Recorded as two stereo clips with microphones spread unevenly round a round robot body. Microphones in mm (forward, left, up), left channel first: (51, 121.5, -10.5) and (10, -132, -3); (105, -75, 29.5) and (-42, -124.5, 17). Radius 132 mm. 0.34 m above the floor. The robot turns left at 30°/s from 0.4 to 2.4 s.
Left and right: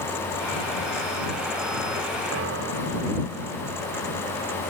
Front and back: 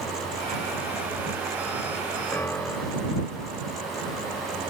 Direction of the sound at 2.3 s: 55° right.